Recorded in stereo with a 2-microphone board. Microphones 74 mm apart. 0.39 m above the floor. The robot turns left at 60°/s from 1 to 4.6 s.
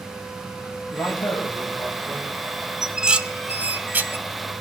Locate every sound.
0.9 s a man speaking: 110° left, 2.5 m; by 2.3 s 30° left, 2.5 m
2.8 s dishes clattering: 5° right (ahead or behind), 0.6 m; by 4.2 s 25° right (ahead or behind), 0.6 m